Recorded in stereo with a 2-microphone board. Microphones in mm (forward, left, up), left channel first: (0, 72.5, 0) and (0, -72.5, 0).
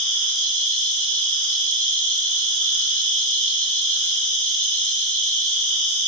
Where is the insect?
10° left (ahead or behind), 1.3 m.